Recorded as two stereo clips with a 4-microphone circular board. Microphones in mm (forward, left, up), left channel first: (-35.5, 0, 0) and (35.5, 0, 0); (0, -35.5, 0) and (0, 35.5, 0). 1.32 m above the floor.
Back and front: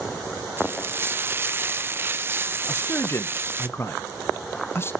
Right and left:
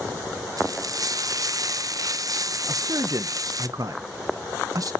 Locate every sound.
0.6 s frying: 60° left, 0.6 m
2.7 s a man speaking: 125° left, 1.0 m